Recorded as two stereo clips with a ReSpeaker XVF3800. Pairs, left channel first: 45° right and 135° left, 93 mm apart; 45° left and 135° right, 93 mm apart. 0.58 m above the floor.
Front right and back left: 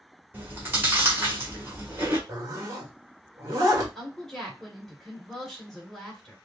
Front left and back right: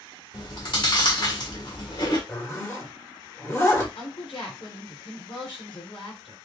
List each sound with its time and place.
0.3 s chewing: 75° left, 1.8 m
2.3 s a zipper: 95° left, 1.5 m
4.0 s a woman speaking: 45° left, 2.5 m